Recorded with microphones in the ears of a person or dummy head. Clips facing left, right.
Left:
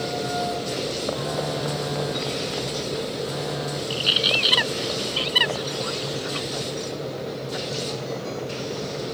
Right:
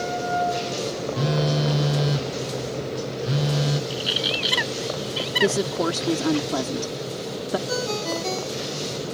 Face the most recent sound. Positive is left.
turn(degrees=-85)